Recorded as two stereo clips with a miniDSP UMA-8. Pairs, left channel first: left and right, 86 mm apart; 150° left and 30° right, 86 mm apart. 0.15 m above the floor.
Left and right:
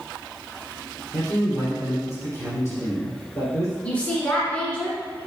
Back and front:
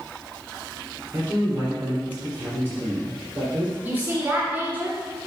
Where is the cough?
No cough in this recording.